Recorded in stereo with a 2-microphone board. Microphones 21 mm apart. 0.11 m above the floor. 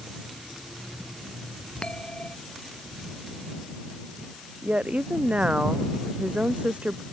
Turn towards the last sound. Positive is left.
turn(degrees=-75)  # may be behind; listen again after turning